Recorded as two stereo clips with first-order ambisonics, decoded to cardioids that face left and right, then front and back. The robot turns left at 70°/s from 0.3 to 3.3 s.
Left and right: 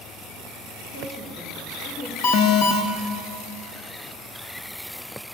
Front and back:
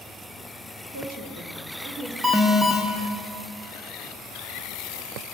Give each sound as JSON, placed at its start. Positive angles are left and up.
{"t": 0.9, "sound": "a woman speaking", "azimuth_deg": -155, "distance_m": 2.0}
{"t": 2.2, "sound": "an alarm", "azimuth_deg": 105, "distance_m": 1.3}